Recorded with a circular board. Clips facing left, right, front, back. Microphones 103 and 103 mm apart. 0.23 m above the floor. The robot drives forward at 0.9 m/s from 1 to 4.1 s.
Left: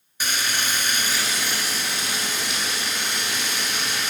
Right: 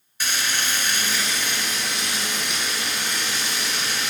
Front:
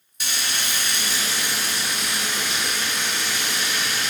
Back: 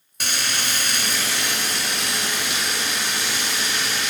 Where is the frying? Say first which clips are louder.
Even, back 2 dB; 165° left, 0.9 m; by 4.1 s 175° left, 3.5 m.